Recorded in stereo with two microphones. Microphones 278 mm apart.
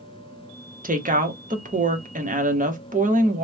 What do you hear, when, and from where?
0.8 s a woman speaking: 30° right (ahead or behind), 0.8 m